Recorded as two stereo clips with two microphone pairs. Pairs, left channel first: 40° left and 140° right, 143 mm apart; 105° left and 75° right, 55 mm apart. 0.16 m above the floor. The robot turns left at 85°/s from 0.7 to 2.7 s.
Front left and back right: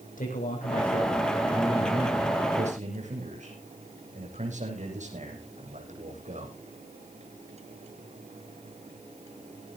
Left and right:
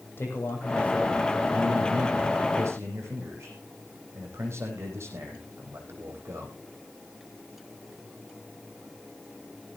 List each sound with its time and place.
0.2 s a man speaking: 60° left, 7.5 m; by 6.6 s 110° right, 7.5 m